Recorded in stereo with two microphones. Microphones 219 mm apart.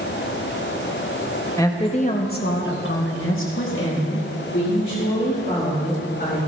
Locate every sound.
1.6 s a woman speaking: 15° left (ahead or behind), 1.7 m; by 6.4 s 55° left (ahead or behind), 5.5 m